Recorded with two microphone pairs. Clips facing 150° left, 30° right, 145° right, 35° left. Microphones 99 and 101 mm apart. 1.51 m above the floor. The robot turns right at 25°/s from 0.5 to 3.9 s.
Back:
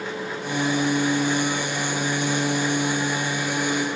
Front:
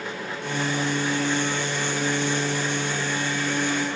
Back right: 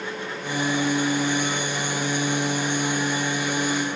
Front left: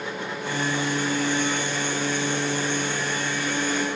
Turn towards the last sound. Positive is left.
No sound to turn to.